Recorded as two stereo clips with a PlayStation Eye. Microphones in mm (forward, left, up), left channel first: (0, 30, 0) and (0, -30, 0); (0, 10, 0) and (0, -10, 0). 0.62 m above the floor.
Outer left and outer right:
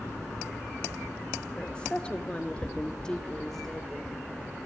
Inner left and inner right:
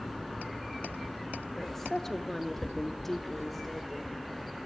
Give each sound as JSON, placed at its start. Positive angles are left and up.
{"t": 1.6, "sound": "a woman speaking", "side_deg": 15, "distance_m": 2.0}